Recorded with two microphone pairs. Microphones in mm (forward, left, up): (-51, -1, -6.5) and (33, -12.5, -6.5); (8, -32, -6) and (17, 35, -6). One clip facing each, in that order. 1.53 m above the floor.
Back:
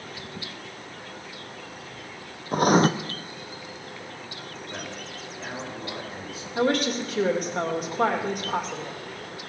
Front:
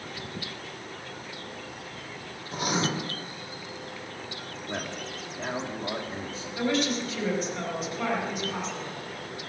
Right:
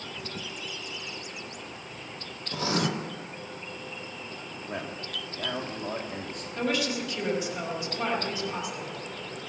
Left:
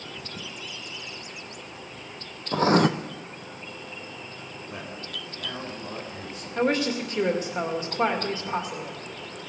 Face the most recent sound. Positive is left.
turn(degrees=135)